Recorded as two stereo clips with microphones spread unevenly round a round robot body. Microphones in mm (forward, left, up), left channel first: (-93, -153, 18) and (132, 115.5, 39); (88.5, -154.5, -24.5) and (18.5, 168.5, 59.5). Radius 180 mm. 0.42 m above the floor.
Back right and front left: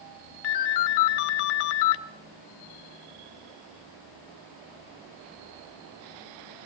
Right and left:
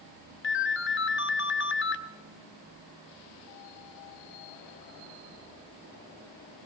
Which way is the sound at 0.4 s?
130° right.